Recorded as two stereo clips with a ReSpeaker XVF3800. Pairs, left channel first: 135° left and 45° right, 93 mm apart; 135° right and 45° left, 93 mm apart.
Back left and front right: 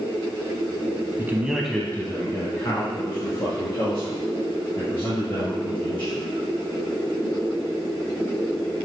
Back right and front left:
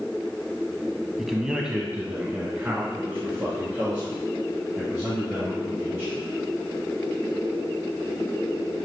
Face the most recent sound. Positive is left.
turn(degrees=120)